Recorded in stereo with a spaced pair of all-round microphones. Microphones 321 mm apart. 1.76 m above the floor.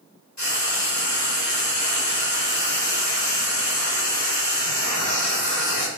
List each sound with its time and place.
0.4 s frying: 60° left (ahead or behind), 2.5 m